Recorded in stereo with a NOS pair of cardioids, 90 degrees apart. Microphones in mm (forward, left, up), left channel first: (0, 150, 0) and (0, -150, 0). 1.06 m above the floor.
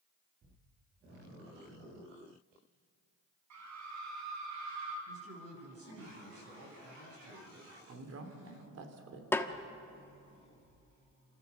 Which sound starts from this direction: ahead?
A snare drum, at 9.3 s.